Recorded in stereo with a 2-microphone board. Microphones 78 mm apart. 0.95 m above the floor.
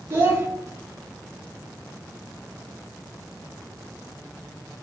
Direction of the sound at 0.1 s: 30° right (ahead or behind).